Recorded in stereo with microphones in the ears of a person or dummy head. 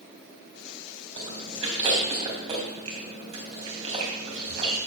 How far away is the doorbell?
I don't hear a doorbell.